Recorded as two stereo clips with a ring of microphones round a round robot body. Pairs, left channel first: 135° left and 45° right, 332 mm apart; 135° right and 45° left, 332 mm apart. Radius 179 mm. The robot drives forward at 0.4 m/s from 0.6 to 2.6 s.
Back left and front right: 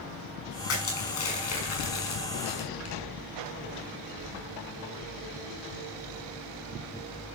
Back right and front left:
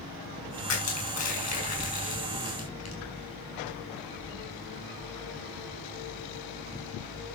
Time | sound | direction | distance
0.7 | crushing | 175° right | 5.5 m